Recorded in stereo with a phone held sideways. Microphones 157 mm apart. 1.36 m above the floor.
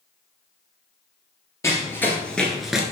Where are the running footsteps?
15° left (ahead or behind), 1.7 m; by 2.8 s 5° right (ahead or behind), 1.3 m.